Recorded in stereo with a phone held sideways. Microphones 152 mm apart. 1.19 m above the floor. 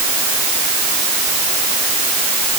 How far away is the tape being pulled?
No tape being pulled in this recording.